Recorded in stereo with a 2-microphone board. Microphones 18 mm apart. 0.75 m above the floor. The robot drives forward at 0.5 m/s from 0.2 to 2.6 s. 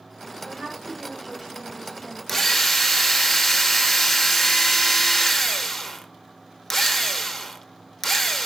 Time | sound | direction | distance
0.5 | a woman speaking | 45° right (ahead or behind) | 5.5 m
2.3 | a drill | 10° left (ahead or behind) | 1.0 m